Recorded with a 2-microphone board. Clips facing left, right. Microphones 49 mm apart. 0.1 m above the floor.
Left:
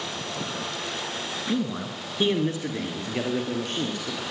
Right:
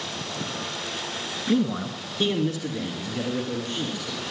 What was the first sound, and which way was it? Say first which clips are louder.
A man speaking: right 5 dB; 20° right (ahead or behind).